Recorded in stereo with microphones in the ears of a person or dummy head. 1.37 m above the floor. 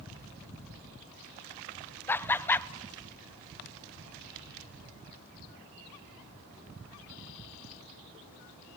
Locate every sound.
2.1 s laughter: 15° left (ahead or behind), 0.9 m